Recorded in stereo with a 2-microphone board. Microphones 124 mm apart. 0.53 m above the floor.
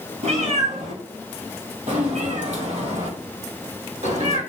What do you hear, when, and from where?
0.2 s a cat meowing: 80° right, 1.9 m; by 4.4 s 75° right (ahead or behind), 4 m